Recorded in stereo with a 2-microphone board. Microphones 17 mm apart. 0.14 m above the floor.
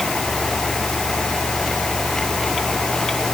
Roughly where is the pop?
No pop in this recording.